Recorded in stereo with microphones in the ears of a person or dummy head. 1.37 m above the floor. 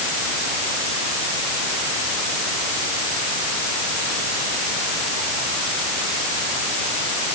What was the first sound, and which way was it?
Only background noise.